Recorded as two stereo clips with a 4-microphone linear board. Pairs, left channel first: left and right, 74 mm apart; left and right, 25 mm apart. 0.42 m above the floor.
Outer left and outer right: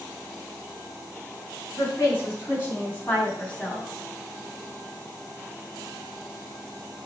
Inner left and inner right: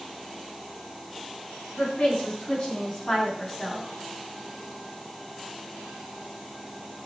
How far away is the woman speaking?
About 4.5 m.